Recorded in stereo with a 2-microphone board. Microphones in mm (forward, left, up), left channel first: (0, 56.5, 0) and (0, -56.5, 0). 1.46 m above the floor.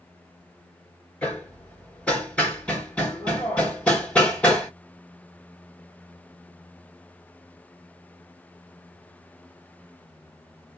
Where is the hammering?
10° left (ahead or behind), 1.2 m.